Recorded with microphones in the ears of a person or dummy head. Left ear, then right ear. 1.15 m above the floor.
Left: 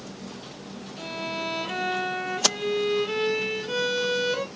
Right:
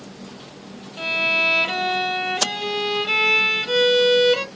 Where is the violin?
40° right (ahead or behind), 0.7 m.